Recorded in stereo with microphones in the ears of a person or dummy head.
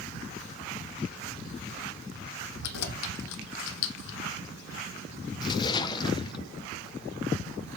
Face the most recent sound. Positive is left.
turn(degrees=25)  # may be behind; listen again after turning